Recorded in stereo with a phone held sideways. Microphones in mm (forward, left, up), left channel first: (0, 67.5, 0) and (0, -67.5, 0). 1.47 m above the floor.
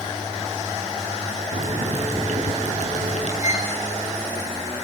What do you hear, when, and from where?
1.5 s boiling: 60° right (ahead or behind), 6 m
3.4 s a violin: 60° left (ahead or behind), 5 m